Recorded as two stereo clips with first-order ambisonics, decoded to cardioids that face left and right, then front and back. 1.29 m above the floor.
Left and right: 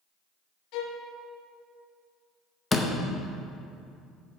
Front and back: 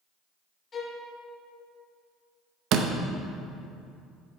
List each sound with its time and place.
0.7 s a violin: 70° left, 0.8 m
2.7 s a door slam: 160° left, 0.6 m